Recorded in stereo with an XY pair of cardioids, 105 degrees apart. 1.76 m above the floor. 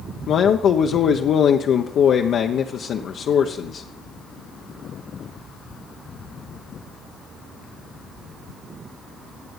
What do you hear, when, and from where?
0.3 s a man speaking: 60° left, 1.1 m